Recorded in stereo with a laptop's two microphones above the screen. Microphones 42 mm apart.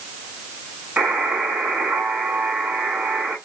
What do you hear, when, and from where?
1.0 s a buzzer: 25° right (ahead or behind), 7.5 m